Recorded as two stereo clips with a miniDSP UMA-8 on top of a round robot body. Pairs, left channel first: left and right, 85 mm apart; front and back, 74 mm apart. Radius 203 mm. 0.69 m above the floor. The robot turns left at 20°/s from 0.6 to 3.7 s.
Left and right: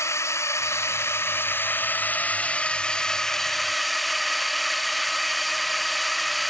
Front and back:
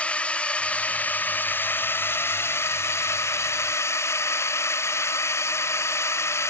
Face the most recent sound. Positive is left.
turn(degrees=0)